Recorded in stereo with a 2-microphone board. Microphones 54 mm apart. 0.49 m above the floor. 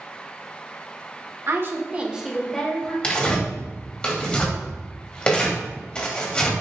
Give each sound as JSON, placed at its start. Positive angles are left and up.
{"t": 1.5, "sound": "a woman speaking", "side_deg": -50, "distance_m": 1.0}
{"t": 3.0, "sound": "tearing paper", "side_deg": 20, "distance_m": 1.7}